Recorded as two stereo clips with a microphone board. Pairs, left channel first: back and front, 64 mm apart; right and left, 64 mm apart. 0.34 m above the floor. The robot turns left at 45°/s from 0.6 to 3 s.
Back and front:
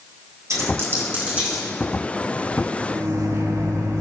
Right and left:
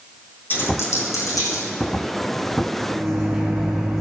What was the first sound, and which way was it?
A dropped coin, 35° right.